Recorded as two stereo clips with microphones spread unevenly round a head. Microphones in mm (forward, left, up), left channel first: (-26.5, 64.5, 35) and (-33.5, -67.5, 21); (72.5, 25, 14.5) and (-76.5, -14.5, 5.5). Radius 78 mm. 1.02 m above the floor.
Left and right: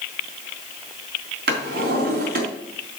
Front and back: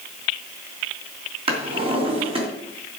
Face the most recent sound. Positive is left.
turn(degrees=-105)